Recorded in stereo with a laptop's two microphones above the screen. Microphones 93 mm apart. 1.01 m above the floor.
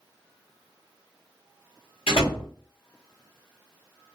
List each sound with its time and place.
2.1 s a door slam: 85° left, 1.4 m